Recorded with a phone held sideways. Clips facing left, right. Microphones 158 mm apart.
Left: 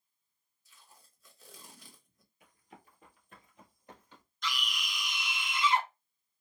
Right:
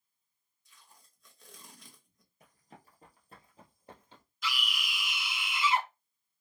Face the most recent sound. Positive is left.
turn(degrees=-5)  # may be behind; listen again after turning